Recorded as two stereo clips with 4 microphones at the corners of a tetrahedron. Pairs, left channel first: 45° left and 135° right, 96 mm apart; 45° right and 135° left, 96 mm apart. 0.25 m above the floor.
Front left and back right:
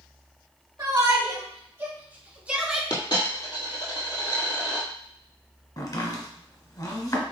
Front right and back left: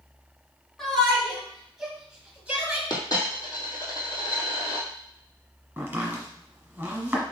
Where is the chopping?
70° left, 1.4 m.